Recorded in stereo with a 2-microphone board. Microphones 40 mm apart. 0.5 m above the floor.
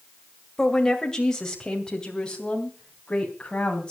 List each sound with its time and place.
0.6 s a woman speaking: 15° left (ahead or behind), 2 m; by 3.9 s 25° left (ahead or behind), 3.5 m